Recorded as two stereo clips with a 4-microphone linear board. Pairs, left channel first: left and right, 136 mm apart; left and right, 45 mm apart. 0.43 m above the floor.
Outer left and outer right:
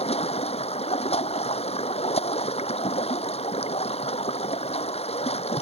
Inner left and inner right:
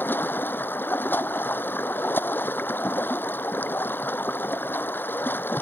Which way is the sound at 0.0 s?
50° left (ahead or behind).